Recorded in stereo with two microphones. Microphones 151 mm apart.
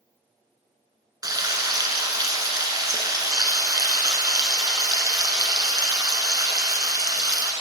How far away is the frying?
About 1.3 m.